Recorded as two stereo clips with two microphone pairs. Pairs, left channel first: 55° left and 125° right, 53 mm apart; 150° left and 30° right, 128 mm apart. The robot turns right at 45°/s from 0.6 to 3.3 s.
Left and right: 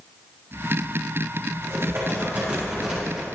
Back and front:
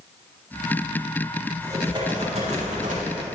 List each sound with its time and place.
1.6 s typing on a keyboard: 100° right, 6 m; by 3.3 s 25° right, 6 m